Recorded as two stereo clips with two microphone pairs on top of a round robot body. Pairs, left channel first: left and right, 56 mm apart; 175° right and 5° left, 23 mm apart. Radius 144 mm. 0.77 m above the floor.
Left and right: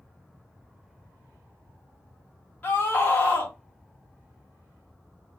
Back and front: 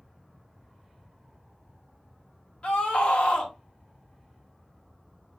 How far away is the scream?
About 1.9 m.